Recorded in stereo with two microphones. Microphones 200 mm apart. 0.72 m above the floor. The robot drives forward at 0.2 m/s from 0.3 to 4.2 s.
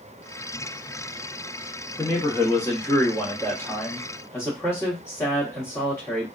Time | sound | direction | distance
2.0 | a man speaking | 15° left (ahead or behind) | 0.9 m